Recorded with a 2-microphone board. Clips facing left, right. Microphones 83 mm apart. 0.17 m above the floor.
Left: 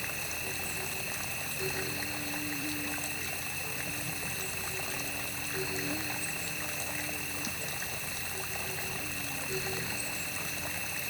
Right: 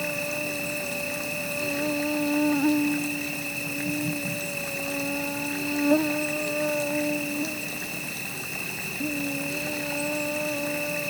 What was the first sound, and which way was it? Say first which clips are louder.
An insect: right 10 dB; 80° right.